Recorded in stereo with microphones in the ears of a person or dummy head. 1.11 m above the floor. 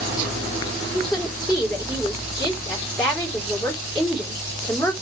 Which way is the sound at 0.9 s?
10° left (ahead or behind).